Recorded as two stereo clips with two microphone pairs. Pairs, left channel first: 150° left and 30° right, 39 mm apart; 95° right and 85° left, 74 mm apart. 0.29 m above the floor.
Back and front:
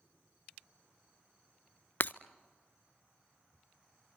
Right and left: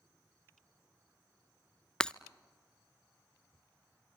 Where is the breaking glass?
175° right, 0.5 m.